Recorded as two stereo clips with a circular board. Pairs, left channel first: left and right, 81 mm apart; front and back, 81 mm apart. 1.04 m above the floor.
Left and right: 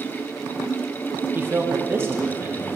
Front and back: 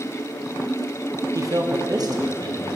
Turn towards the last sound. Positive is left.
turn(degrees=-150)